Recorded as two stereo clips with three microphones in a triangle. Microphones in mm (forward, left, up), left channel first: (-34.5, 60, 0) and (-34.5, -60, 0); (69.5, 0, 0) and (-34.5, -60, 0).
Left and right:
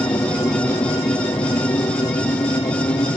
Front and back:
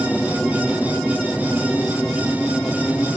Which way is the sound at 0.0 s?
105° left.